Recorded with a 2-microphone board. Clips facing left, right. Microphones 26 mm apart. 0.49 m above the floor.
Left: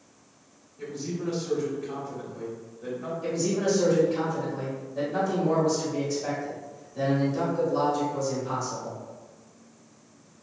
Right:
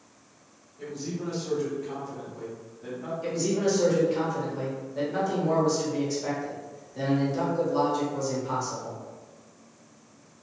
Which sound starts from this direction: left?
A man speaking, at 0.8 s.